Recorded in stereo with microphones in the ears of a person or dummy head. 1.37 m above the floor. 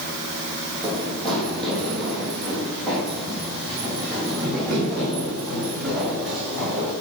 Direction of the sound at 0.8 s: 5° left (ahead or behind).